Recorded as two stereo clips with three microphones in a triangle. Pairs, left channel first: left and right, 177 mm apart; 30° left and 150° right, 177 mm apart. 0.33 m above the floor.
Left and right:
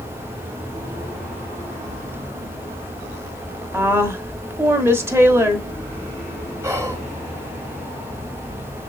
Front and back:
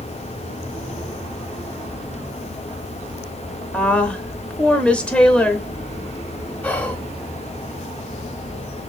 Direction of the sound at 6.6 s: 45° right.